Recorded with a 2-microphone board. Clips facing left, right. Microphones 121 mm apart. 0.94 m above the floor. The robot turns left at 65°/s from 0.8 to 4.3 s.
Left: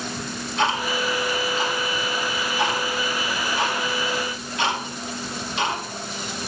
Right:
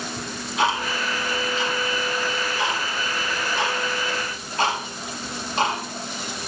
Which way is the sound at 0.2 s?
5° right (ahead or behind).